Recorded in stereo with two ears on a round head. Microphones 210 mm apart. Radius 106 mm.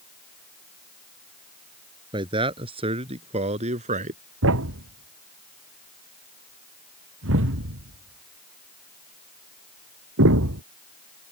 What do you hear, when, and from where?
2.1 s a man speaking: 20° right (ahead or behind); by 4.2 s 35° right (ahead or behind)
4.4 s a thud: 60° right (ahead or behind)